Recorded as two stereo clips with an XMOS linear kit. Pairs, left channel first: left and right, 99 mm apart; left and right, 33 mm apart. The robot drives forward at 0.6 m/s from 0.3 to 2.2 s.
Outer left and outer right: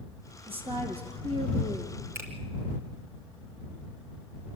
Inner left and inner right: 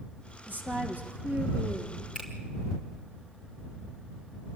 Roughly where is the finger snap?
Right.